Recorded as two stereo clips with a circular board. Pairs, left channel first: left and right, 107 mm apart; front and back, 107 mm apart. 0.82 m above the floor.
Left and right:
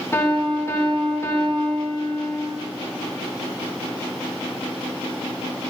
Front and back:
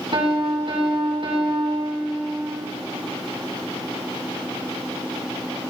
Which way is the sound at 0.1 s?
150° left.